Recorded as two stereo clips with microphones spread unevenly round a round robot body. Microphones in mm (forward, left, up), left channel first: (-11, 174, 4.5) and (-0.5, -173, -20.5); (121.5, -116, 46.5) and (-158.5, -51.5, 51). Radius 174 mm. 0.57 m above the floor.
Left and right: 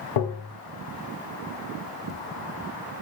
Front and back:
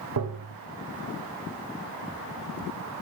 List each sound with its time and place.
0.2 s tapping: 120° left, 0.8 m